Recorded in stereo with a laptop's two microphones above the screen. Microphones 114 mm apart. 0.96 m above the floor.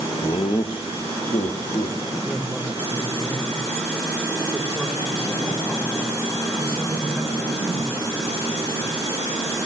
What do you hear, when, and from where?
0.2 s laughter: 50° left (ahead or behind), 1.1 m; by 2.0 s 70° left (ahead or behind), 1.7 m
2.2 s a man speaking: 10° left (ahead or behind), 4.5 m